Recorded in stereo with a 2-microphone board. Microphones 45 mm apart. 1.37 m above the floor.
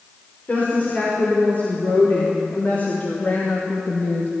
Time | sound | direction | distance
0.5 | a woman speaking | 35° left (ahead or behind) | 5 m